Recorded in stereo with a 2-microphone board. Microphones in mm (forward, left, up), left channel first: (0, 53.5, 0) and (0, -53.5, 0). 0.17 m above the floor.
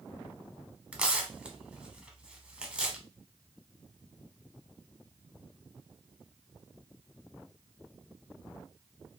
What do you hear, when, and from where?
0.9 s tearing paper: 10° right (ahead or behind), 0.7 m